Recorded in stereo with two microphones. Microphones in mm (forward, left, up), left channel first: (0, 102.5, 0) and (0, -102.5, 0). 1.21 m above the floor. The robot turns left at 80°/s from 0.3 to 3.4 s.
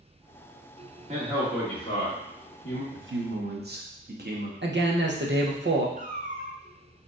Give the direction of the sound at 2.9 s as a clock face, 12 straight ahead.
3 o'clock.